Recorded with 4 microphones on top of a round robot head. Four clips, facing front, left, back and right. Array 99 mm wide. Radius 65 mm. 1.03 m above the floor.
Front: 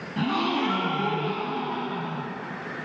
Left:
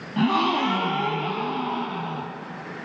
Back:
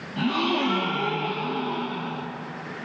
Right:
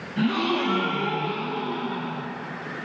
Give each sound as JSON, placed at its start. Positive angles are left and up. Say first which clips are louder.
{"t": 0.2, "sound": "a gasp", "louder": "left 3 dB, back 1 dB", "azimuth_deg": 75, "distance_m": 2.5}